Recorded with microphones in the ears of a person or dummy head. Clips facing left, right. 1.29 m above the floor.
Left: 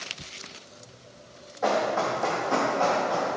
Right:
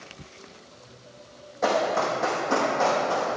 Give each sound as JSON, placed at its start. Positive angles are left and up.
{"t": 1.6, "sound": "running footsteps", "side_deg": -40, "distance_m": 3.0}